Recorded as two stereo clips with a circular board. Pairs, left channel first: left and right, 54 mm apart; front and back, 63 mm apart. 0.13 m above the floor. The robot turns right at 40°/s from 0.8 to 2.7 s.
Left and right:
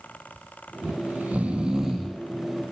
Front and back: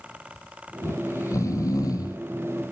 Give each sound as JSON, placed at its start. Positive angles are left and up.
{"t": 0.8, "sound": "snoring", "azimuth_deg": -50, "distance_m": 1.0}